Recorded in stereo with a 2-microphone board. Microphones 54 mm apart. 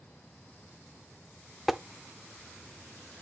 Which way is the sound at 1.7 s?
Centre (ahead or behind).